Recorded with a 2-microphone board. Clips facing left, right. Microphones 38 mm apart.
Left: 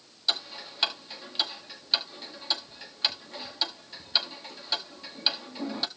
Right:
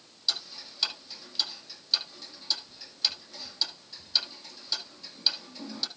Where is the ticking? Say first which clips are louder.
Left 3 dB; 35° left (ahead or behind), 1.5 m.